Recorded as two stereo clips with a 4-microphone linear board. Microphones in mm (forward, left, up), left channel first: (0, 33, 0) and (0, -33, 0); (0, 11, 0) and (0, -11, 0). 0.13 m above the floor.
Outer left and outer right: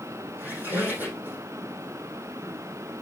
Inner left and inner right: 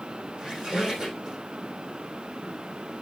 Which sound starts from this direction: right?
A squeak, at 0.4 s.